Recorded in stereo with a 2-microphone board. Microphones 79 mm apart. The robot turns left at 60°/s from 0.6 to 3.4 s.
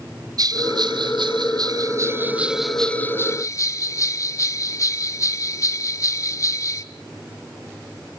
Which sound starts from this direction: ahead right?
A bell, at 0.4 s.